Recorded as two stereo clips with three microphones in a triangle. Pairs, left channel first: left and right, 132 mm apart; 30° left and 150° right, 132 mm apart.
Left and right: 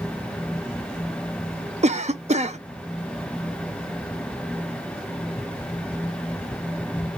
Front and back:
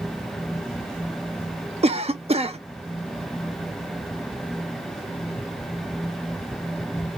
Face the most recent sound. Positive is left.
turn(degrees=-115)